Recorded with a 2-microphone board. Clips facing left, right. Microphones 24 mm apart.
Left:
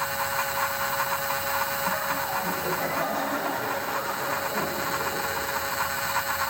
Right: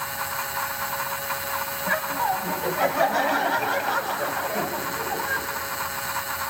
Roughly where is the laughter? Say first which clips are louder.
Right 3 dB; right.